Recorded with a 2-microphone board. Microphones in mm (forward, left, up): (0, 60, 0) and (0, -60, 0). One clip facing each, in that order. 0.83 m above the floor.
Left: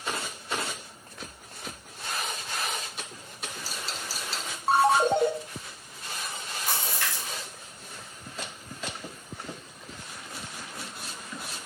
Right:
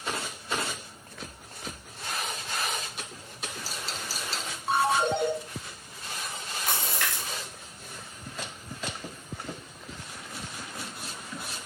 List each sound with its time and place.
4.7 s a ringtone: 40° left (ahead or behind), 0.6 m
6.7 s a splash: 70° right (ahead or behind), 2.0 m